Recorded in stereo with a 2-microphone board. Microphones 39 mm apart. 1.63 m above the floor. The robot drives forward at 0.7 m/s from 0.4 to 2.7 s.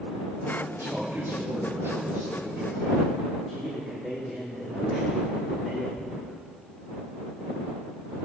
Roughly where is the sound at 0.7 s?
Right.